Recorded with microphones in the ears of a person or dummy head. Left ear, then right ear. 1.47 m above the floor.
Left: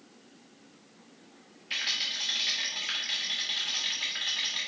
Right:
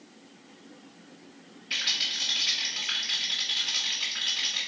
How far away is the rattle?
About 2 m.